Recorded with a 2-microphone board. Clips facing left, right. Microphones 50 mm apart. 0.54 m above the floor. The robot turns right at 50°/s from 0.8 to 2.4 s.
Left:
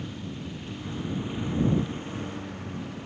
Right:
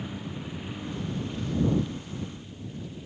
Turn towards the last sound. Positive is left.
turn(degrees=70)